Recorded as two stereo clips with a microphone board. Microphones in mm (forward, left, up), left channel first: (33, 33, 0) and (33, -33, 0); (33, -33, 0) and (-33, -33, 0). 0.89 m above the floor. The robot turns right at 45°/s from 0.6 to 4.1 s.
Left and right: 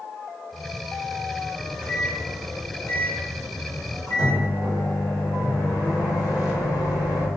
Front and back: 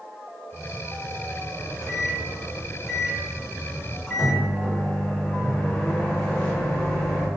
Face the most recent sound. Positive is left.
turn(degrees=80)